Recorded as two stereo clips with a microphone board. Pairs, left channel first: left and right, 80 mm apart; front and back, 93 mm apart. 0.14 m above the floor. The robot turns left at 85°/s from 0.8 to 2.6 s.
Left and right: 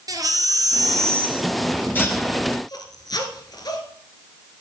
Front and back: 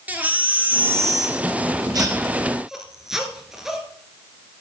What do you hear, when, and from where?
0.1 s a baby crying: 110° right, 2 m; by 3.8 s 95° left, 2 m